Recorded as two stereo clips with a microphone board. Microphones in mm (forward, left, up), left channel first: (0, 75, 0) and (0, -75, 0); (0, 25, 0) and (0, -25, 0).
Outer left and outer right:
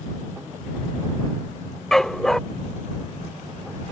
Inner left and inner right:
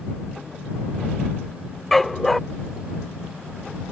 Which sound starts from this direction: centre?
A dog barking, at 1.9 s.